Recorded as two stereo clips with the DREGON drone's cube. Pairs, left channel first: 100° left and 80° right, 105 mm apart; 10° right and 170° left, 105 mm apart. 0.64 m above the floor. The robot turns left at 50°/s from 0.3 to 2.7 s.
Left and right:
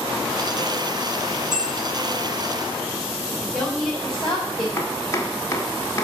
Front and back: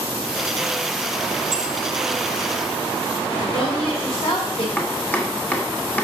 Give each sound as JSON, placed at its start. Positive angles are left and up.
{"t": 1.5, "sound": "a bell", "azimuth_deg": 10, "distance_m": 2.5}
{"t": 3.3, "sound": "a woman speaking", "azimuth_deg": 15, "distance_m": 3.0}
{"t": 4.8, "sound": "chopping", "azimuth_deg": 55, "distance_m": 1.4}